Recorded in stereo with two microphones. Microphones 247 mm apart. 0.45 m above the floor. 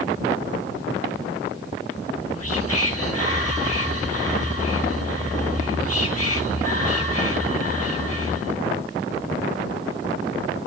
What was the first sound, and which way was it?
Whispering, 70° left (ahead or behind).